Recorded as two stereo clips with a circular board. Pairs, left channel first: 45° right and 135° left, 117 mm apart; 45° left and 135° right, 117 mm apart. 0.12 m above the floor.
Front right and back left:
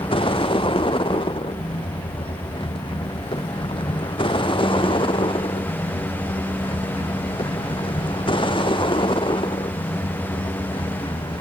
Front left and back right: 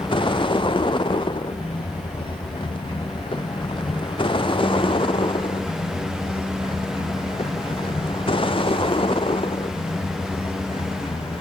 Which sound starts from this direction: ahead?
A vehicle, at 0.0 s.